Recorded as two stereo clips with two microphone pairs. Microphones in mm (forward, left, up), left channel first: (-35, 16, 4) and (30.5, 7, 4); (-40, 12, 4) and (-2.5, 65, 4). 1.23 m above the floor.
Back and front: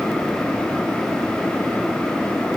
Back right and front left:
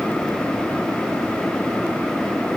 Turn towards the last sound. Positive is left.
No sound to turn to.